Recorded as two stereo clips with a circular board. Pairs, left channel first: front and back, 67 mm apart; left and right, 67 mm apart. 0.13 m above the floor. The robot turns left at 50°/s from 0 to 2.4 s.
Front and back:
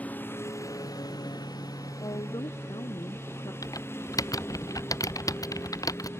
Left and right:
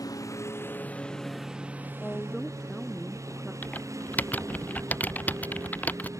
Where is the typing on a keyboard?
25° left.